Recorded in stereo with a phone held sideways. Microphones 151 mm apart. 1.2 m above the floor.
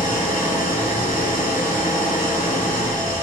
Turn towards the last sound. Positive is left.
turn(degrees=60)  # may be behind; listen again after turning